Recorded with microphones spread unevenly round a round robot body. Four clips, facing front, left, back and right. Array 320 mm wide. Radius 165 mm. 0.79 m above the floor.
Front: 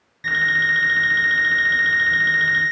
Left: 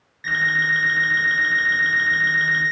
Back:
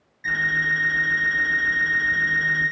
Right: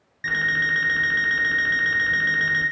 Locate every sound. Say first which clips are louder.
0.2 s an alarm clock: left 2 dB, front 3 dB; 40° right, 0.7 m